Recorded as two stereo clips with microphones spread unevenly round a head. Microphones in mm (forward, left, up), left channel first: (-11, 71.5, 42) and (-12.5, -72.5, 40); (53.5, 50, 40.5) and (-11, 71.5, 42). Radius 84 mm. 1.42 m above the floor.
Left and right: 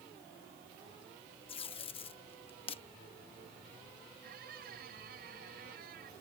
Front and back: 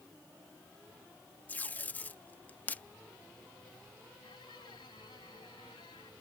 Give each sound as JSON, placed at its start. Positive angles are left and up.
{"t": 1.5, "sound": "tape being pulled", "azimuth_deg": 40}
{"t": 4.2, "sound": "a squeak", "azimuth_deg": -60}